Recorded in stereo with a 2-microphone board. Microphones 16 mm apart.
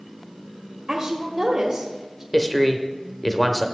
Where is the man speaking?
5° left (ahead or behind), 0.9 m.